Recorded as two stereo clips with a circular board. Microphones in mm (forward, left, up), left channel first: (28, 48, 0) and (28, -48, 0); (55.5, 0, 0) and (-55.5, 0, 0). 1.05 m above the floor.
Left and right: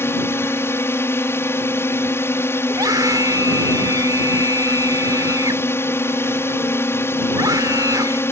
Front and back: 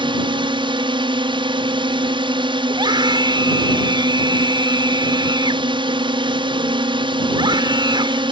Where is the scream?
135° right.